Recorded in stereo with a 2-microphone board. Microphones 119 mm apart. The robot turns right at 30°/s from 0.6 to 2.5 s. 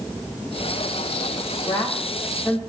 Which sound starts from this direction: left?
A woman speaking, at 1.7 s.